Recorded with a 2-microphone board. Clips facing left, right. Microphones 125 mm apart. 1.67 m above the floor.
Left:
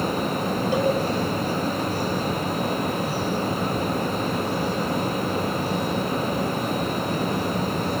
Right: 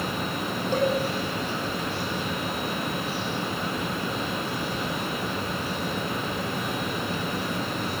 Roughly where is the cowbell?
Centre.